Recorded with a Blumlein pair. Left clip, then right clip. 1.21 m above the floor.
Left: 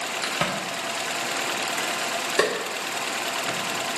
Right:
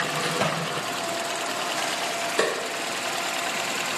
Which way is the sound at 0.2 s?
10° left.